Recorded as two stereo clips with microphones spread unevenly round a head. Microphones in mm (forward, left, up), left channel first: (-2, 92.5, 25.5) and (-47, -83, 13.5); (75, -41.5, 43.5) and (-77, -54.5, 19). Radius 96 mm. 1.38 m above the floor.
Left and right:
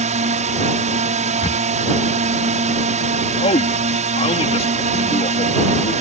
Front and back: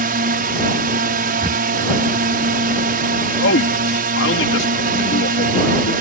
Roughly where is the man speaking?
Ahead.